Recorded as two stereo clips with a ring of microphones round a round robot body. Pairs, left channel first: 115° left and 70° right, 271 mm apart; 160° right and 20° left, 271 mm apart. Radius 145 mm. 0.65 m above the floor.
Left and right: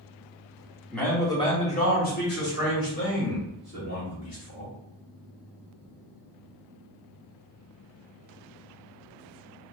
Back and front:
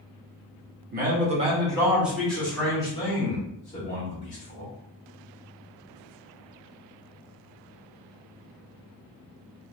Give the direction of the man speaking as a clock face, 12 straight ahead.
11 o'clock.